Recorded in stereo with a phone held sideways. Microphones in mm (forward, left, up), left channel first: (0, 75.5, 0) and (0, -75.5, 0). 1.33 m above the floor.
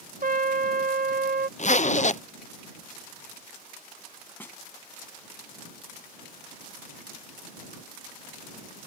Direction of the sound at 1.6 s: 50° left (ahead or behind).